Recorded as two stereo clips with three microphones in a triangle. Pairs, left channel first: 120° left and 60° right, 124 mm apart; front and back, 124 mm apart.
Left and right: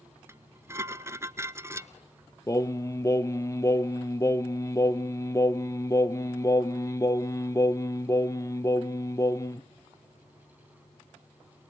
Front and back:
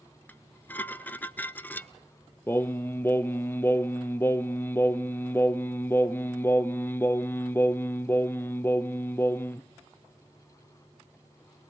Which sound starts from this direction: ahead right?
Dishes clattering, at 0.3 s.